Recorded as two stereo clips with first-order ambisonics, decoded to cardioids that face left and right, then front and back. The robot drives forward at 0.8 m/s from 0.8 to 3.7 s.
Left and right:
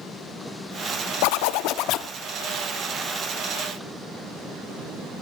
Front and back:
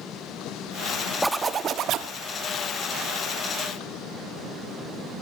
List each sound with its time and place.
1.2 s a zipper: 90° left, 0.7 m; by 2.1 s 135° left, 1.0 m